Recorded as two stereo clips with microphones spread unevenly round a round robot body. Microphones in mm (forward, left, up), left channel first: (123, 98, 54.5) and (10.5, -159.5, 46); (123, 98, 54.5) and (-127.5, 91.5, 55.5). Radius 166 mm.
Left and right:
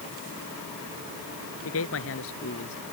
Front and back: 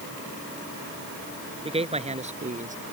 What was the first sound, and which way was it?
A man speaking, 115° left.